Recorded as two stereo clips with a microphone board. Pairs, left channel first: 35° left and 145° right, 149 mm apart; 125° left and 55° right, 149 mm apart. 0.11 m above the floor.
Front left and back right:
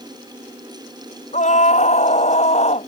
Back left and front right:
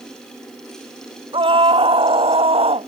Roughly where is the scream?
Ahead.